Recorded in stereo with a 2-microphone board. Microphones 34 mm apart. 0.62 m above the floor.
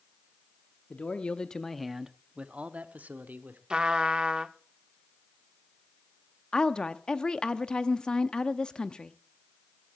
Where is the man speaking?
45° left (ahead or behind), 0.9 m; by 3.6 s 65° right (ahead or behind), 1.4 m.